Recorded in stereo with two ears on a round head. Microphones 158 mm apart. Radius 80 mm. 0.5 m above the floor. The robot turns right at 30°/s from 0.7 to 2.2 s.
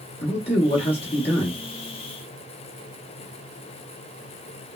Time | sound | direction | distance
0.2 | a man speaking | 35° left (ahead or behind) | 1.0 m